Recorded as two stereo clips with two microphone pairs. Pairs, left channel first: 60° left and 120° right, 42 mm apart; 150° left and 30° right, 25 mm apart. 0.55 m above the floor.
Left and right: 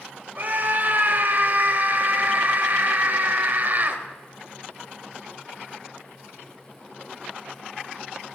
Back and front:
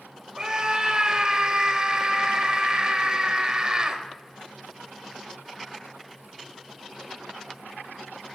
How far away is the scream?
About 1.9 m.